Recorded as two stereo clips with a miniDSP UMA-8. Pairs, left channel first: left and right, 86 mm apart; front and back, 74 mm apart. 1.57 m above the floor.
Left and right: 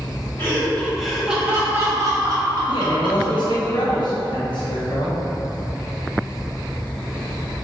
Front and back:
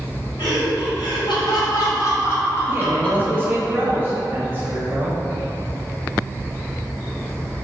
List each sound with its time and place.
0.4 s laughter: 25° left, 1.1 m; by 3.6 s 80° right, 1.5 m
2.7 s a man speaking: 115° left, 0.9 m